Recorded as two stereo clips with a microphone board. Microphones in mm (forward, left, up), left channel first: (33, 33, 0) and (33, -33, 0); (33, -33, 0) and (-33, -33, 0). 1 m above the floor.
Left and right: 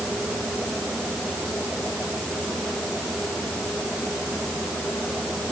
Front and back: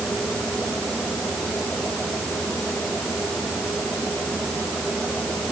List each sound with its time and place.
Only background noise.